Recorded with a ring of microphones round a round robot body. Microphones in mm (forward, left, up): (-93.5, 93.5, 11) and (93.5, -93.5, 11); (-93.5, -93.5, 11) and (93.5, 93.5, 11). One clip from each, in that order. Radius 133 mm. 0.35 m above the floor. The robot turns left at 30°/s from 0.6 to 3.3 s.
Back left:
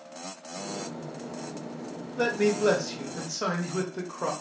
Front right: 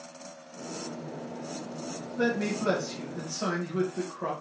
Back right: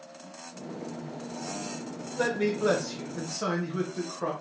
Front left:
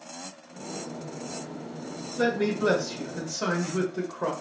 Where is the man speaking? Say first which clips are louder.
Back left 4 dB, front left 2 dB; 150° left, 0.9 m; by 4.3 s 115° left, 0.9 m.